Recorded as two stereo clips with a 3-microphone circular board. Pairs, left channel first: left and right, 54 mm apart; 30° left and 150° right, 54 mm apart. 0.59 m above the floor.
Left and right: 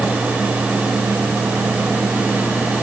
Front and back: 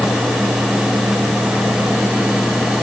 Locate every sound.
Only background noise.